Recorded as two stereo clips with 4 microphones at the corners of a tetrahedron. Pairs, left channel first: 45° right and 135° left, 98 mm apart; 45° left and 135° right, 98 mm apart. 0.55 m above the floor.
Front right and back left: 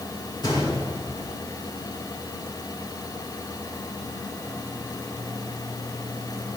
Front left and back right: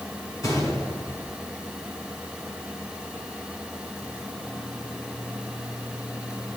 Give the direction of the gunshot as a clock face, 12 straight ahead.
12 o'clock.